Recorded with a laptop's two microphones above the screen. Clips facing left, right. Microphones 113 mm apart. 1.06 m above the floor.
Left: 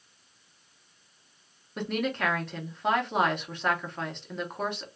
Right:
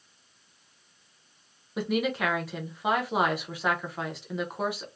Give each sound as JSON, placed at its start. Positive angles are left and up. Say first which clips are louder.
{"t": 1.8, "sound": "a woman speaking", "louder": "right 2 dB", "side_deg": -5, "distance_m": 0.8}